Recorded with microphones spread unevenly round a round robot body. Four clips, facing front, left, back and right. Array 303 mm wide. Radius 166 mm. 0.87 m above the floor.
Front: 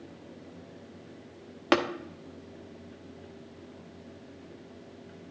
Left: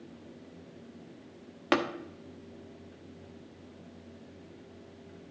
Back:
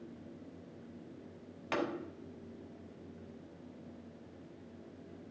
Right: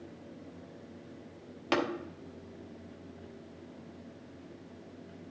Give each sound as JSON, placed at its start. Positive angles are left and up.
{"t": 1.7, "sound": "tapping", "azimuth_deg": 25, "distance_m": 1.1}